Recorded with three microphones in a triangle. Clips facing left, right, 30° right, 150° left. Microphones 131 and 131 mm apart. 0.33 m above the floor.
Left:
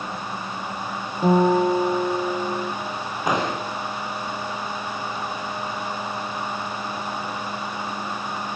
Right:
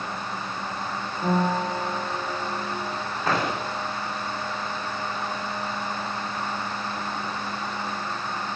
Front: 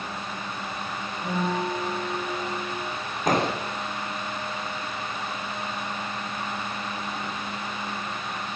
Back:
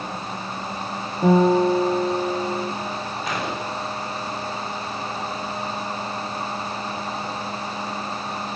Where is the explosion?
15° left, 5 m.